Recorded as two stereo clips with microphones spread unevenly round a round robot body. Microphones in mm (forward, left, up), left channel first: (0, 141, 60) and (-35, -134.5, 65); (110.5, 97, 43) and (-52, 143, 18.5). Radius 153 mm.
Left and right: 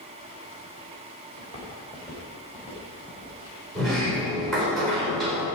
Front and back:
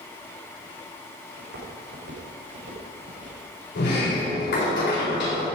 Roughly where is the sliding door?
Ahead.